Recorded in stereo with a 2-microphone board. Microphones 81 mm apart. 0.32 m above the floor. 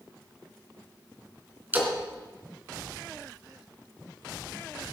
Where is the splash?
25° right (ahead or behind), 3 m.